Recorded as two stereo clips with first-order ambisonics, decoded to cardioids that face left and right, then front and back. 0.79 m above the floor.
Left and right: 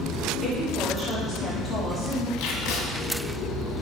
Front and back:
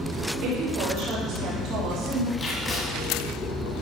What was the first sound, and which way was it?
A woman speaking, straight behind.